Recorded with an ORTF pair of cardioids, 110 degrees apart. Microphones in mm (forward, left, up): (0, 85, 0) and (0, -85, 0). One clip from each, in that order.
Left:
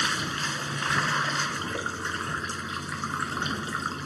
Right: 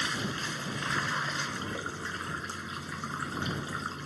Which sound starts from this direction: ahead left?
Running water, at 0.0 s.